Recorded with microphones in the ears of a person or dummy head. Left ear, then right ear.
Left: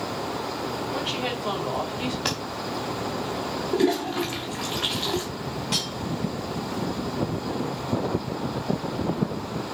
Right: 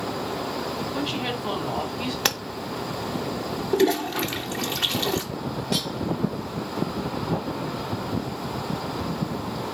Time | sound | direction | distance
0.9 | a woman speaking | centre (ahead or behind) | 3 m
2.2 | tapping | 45° right (ahead or behind) | 0.6 m
3.7 | a toilet flushing | 30° right (ahead or behind) | 0.7 m
5.7 | cutlery clinking | 10° left (ahead or behind) | 2.5 m